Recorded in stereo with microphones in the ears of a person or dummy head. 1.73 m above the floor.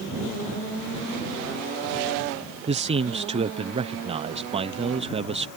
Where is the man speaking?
30° right (ahead or behind).